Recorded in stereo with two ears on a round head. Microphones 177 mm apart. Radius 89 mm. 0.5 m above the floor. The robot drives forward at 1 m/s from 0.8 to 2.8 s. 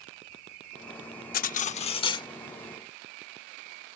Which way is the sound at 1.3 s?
45° left (ahead or behind).